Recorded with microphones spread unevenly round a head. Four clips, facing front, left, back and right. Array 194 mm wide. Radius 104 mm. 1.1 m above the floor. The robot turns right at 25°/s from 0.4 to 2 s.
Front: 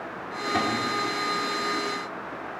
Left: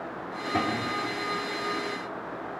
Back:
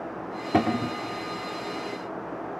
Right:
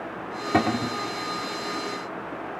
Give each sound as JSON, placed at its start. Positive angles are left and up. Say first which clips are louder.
{"t": 0.5, "sound": "a cupboard door", "louder": "right 5 dB, back 3 dB", "azimuth_deg": -140, "distance_m": 1.2}